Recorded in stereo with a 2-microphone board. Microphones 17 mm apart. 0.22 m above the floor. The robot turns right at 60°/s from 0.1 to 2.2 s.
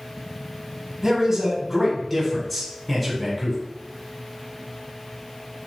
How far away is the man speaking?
About 1.3 m.